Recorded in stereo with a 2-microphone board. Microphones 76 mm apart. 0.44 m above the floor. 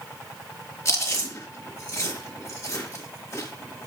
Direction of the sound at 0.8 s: 40° left (ahead or behind).